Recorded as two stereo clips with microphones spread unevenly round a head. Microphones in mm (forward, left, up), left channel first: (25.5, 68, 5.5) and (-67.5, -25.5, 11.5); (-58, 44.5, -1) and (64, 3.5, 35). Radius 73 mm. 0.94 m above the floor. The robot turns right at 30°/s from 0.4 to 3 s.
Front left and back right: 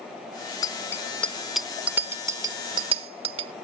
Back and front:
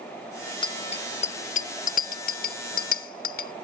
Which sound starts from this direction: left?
A bicycle bell, at 0.6 s.